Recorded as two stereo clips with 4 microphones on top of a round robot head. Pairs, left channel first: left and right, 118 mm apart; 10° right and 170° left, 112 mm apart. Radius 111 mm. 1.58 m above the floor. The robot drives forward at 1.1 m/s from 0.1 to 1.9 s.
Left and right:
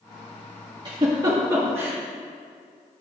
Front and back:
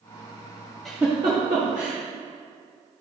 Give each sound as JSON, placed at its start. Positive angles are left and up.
{"t": 0.8, "sound": "a giggle", "azimuth_deg": -95, "distance_m": 1.1}